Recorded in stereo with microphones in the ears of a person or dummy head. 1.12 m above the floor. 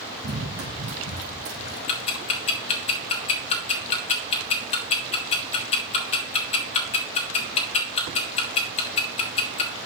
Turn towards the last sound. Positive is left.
turn(degrees=40)  # may be behind; listen again after turning